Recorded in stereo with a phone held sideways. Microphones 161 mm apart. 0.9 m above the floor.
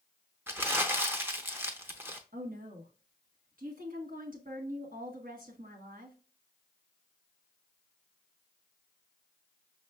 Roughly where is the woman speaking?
Right.